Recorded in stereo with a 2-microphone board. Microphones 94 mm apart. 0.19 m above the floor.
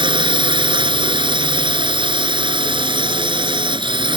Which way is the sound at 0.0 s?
60° right (ahead or behind).